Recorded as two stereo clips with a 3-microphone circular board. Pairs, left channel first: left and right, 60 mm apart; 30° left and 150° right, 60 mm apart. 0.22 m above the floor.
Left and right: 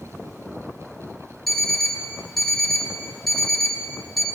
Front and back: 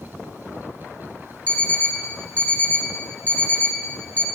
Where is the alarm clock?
5° left, 0.6 m.